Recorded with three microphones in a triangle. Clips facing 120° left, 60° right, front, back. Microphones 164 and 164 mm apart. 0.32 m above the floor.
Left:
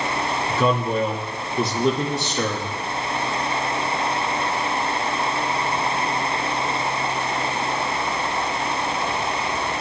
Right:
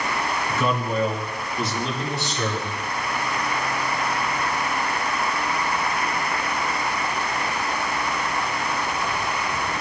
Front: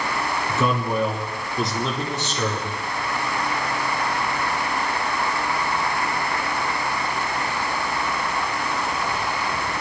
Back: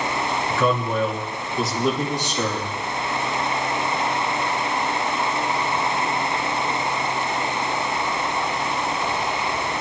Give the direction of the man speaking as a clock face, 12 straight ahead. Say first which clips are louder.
Left 4 dB, back 1 dB; 10 o'clock.